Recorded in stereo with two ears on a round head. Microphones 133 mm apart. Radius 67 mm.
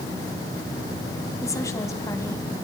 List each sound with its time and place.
1.4 s a woman speaking: 20° left (ahead or behind), 3.5 m